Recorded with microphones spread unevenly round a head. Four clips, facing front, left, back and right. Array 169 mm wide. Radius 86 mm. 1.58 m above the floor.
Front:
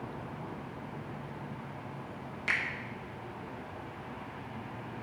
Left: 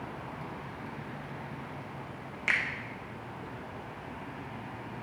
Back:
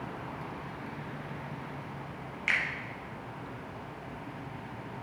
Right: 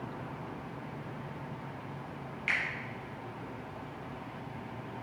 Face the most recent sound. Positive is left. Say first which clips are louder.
# left 3 dB, back 2 dB
turn(degrees=65)